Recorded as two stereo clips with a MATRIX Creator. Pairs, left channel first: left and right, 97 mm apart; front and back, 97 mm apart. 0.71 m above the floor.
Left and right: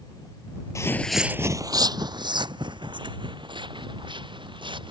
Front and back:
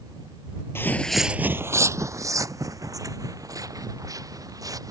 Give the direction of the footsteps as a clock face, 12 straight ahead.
10 o'clock.